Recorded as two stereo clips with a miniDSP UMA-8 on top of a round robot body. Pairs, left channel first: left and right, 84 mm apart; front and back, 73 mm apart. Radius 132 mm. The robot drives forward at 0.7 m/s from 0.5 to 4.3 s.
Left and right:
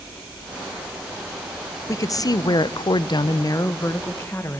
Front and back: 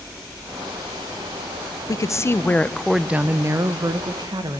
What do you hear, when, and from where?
1.9 s a woman speaking: 40° left, 1.0 m; by 4.6 s 155° left, 1.2 m